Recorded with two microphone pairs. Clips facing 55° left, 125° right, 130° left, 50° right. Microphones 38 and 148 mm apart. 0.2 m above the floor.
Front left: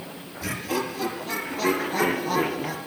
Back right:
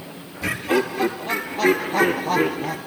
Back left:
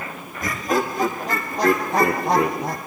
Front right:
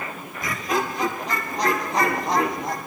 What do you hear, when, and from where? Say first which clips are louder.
0.4 s laughter: back right 7 dB, back left 3 dB; 175° left, 4.5 m; by 2.8 s 145° left, 3 m